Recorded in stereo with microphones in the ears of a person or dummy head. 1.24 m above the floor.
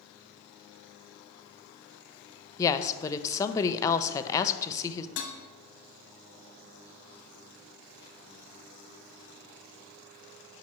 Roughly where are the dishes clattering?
Left.